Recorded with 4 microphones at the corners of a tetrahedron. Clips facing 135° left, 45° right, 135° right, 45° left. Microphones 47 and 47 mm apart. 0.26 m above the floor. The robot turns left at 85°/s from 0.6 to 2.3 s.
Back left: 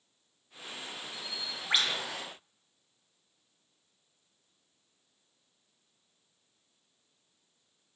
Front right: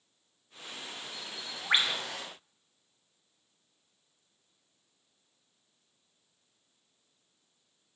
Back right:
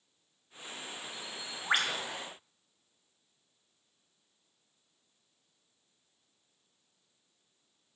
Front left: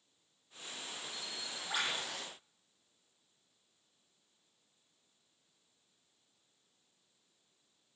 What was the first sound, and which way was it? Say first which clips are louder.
A bird: back left 1 dB, back right 2 dB; 60° right.